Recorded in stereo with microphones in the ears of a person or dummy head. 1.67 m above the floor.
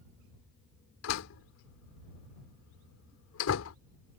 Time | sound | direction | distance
1.0 | a door slam | 80° left | ?